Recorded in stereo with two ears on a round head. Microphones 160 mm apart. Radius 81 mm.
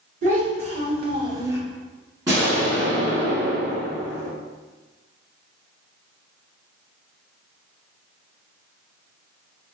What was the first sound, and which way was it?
A child speaking, 45° right (ahead or behind).